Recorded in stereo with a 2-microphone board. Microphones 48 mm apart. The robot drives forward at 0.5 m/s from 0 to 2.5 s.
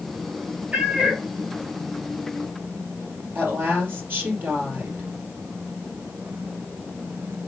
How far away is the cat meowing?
About 1.0 m.